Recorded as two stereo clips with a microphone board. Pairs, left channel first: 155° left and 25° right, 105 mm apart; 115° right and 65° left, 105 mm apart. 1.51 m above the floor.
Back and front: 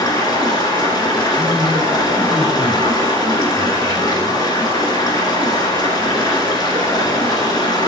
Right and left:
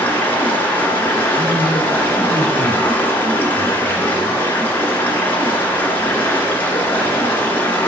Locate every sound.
0.0 s running water: straight behind, 2 m
1.3 s a man speaking: 65° left, 4.5 m